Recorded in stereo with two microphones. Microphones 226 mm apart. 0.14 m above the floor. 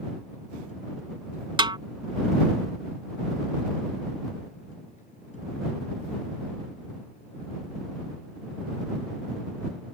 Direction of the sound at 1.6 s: 20° right (ahead or behind).